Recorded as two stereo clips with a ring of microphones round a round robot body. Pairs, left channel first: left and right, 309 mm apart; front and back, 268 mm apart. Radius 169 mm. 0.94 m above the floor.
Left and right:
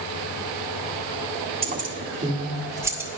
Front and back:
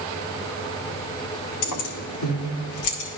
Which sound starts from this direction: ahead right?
Keys jangling, at 1.6 s.